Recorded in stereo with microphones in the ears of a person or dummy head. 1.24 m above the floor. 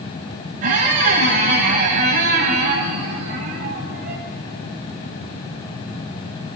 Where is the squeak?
45° right (ahead or behind), 1.5 m.